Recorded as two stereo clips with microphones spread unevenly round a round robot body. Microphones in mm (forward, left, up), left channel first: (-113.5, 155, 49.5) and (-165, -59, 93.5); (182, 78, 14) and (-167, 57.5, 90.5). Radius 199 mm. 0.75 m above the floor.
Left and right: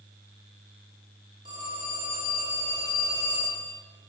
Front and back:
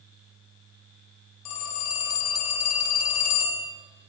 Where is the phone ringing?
25° right, 2 m.